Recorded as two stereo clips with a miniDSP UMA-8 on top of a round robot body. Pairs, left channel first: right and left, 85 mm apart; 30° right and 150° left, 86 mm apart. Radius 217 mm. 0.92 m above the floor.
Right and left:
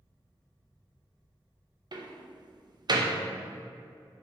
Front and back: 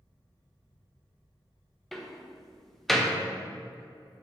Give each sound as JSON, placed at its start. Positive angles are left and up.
{"t": 1.9, "sound": "a door slam", "azimuth_deg": 60, "distance_m": 1.0}